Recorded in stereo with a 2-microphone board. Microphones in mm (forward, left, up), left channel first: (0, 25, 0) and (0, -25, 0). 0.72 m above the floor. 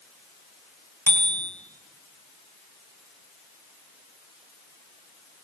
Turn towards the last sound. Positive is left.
turn(degrees=50)  # may be behind; listen again after turning